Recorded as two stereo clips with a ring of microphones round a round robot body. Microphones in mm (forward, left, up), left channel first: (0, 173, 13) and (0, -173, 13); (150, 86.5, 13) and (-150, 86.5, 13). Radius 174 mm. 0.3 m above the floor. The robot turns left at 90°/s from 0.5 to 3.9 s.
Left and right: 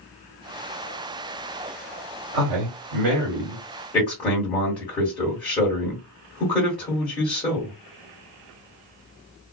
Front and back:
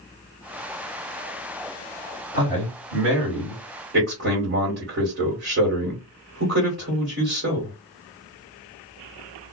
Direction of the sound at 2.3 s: 60° right.